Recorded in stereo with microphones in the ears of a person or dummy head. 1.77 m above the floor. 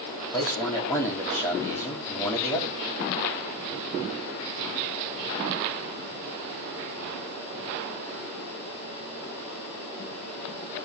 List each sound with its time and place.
0.3 s a man speaking: 5° left (ahead or behind), 4 m